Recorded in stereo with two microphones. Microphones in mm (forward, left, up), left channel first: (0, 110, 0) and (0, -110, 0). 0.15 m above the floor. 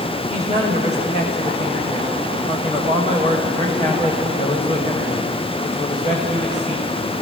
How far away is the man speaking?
About 6.5 m.